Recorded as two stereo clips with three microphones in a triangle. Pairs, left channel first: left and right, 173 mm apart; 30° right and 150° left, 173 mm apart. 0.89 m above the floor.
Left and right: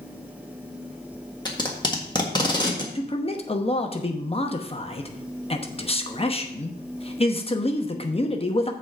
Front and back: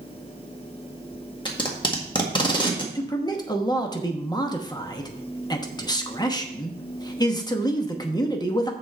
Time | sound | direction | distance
1.4 | tape being pulled | 25° left | 1.6 m
3.0 | a man speaking | 35° left | 0.9 m